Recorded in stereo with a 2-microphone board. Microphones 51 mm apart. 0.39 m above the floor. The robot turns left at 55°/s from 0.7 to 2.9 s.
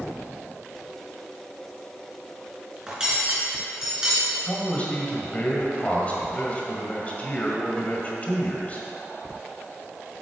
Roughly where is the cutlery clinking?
Centre.